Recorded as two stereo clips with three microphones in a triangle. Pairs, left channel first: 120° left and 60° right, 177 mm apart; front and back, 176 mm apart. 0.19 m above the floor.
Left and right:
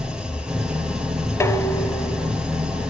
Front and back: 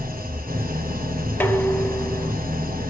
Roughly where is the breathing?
I don't hear breathing.